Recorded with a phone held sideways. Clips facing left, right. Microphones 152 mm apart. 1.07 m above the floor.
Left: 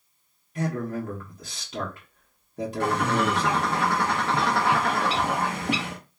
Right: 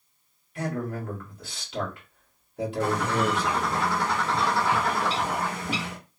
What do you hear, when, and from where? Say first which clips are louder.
0.6 s a man speaking: left 2 dB; 40° left (ahead or behind), 1.5 m
2.8 s a bird: left 2 dB; 65° left (ahead or behind), 0.6 m